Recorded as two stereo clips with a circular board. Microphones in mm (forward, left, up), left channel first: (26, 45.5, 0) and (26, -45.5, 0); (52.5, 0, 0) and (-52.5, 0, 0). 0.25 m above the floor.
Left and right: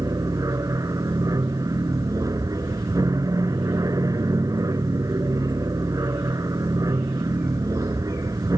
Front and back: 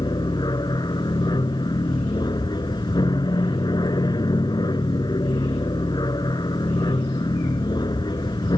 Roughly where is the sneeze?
I don't hear a sneeze.